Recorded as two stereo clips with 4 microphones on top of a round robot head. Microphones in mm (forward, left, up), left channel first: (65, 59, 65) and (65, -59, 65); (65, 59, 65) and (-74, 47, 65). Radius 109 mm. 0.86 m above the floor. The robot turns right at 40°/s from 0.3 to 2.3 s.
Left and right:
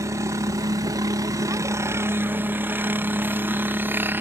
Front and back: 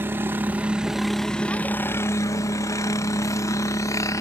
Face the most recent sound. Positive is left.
turn(degrees=-40)